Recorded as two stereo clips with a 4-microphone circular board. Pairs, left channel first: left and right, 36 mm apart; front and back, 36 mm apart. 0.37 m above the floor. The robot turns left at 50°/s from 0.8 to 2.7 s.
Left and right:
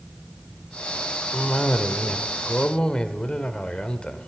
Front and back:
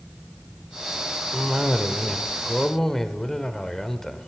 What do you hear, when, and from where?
1.3 s a cough: 135° left, 0.9 m; by 4.3 s 65° left, 0.9 m